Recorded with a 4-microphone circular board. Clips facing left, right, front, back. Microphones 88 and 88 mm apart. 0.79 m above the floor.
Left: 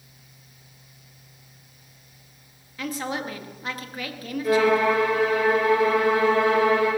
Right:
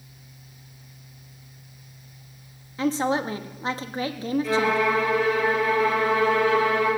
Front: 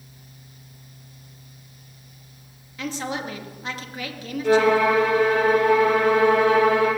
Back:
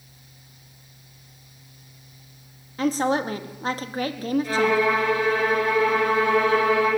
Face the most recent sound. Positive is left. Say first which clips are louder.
# left 5 dB, front 6 dB
turn(degrees=25)